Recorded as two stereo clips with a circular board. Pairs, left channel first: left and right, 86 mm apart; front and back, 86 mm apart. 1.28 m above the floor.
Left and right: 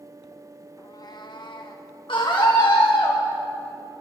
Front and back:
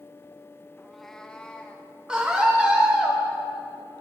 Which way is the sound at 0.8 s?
100° left.